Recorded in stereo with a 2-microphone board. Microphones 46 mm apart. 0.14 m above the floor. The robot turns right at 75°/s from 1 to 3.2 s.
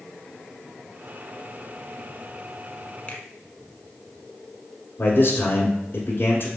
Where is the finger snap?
25° left (ahead or behind), 0.9 m.